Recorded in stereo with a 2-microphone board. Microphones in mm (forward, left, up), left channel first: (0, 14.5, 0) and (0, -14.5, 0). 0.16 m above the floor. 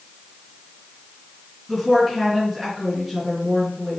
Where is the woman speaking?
Centre (ahead or behind), 2.5 m.